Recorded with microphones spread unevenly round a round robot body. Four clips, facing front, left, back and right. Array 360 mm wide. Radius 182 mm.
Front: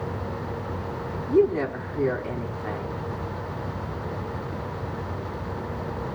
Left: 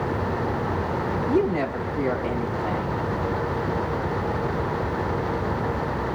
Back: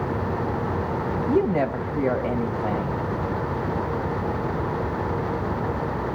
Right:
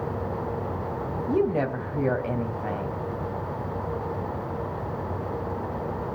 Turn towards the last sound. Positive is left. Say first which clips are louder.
# even, front 2 dB
turn(degrees=-165)